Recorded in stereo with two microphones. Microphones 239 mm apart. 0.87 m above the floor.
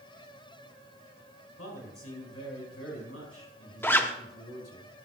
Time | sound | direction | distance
1.6 | a man speaking | 75° left (ahead or behind) | 5 m
3.8 | a zipper | 10° left (ahead or behind) | 0.8 m